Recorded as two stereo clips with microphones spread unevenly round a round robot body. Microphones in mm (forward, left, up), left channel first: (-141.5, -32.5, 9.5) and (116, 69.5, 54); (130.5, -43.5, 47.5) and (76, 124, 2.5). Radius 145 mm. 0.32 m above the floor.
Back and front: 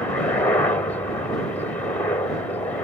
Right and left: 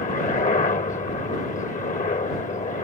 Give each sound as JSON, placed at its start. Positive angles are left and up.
{"t": 0.0, "sound": "a helicopter", "azimuth_deg": -95}